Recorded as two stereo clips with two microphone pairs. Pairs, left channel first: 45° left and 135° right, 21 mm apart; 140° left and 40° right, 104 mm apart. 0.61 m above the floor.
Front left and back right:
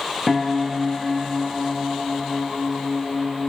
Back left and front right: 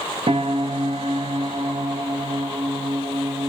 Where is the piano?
45° right, 0.7 m.